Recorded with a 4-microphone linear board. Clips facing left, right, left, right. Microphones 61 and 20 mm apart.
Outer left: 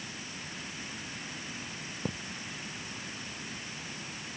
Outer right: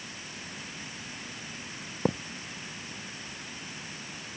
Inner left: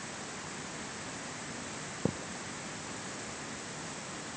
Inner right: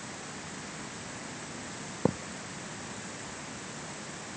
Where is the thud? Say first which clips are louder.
Outer right 9 dB, inner right 5 dB; 40° right (ahead or behind).